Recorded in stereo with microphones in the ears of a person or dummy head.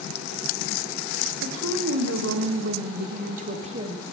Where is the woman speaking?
85° right, 1.3 m; by 4.0 s 30° right (ahead or behind), 1.0 m.